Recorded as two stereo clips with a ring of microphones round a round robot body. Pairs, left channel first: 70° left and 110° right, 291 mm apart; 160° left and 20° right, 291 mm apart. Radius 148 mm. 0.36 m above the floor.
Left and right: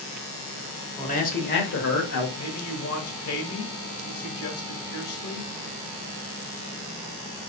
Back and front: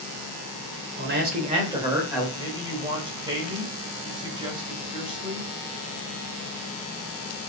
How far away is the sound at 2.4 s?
About 1.3 m.